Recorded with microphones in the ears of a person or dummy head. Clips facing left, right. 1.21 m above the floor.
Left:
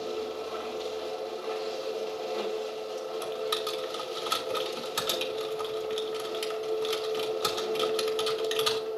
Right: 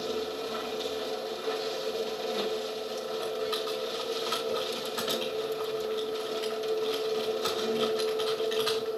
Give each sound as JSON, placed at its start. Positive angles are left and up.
{"t": 0.0, "sound": "a machine running", "side_deg": -20, "distance_m": 1.3}
{"t": 3.2, "sound": "typing on a keyboard", "side_deg": 45, "distance_m": 1.8}